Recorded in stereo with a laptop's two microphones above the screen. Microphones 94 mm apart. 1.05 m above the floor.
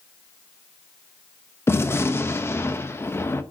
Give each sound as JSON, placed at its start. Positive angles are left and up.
{"t": 1.7, "sound": "a gunshot", "side_deg": 25, "distance_m": 0.7}